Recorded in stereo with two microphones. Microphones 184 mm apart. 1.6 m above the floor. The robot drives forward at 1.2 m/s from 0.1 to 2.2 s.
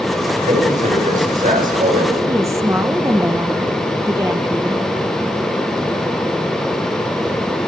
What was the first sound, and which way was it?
A man speaking, 40° right (ahead or behind).